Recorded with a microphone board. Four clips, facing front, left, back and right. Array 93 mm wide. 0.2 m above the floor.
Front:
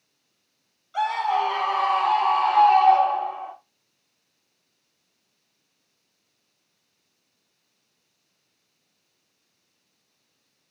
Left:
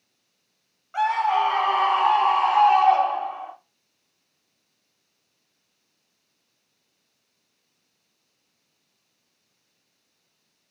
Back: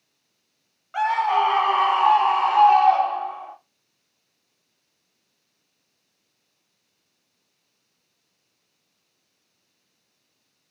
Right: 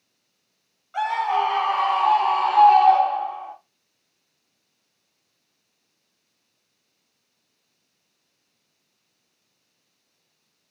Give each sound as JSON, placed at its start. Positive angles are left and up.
{"t": 0.9, "sound": "a scream", "azimuth_deg": 165, "distance_m": 1.5}